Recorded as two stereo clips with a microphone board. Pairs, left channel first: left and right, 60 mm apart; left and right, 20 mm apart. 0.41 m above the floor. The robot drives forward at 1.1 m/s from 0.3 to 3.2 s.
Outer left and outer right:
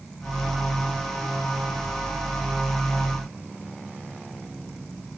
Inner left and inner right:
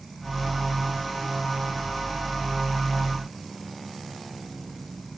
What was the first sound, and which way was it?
Only background noise.